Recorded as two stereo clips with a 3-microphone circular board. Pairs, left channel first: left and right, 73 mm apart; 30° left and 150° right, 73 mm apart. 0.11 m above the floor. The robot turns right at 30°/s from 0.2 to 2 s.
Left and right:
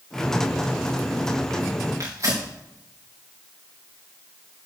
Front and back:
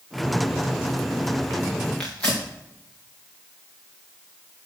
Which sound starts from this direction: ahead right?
Tearing paper, at 2.0 s.